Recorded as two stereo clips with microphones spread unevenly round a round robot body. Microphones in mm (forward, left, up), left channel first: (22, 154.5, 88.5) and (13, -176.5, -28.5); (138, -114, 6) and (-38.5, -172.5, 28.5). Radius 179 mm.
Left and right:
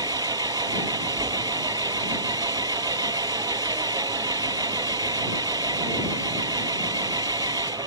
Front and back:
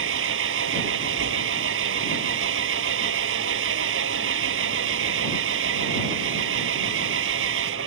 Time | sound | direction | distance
0.0 | an engine running | 175° right | ?